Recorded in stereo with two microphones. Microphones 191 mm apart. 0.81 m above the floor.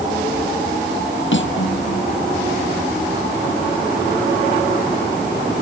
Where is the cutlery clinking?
85° left.